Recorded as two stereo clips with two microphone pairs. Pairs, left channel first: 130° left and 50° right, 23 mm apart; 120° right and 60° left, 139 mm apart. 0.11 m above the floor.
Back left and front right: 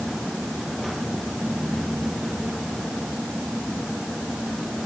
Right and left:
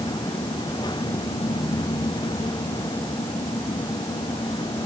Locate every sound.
Only background noise.